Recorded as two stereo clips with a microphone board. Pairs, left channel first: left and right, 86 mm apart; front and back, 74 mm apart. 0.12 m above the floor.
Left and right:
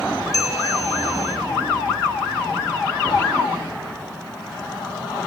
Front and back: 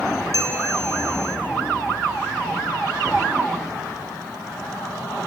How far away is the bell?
About 1.9 m.